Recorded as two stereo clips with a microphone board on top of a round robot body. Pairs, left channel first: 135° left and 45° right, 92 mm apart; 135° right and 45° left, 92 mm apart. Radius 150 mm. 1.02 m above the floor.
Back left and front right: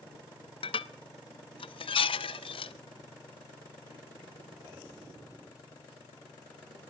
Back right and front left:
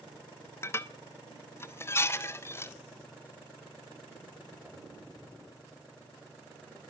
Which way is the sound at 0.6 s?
160° left.